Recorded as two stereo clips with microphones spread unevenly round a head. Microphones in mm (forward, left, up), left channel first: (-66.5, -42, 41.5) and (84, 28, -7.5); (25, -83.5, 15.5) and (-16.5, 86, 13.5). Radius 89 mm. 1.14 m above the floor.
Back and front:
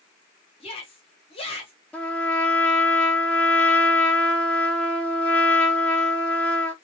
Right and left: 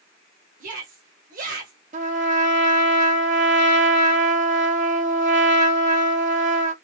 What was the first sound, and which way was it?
A shout, 140° left.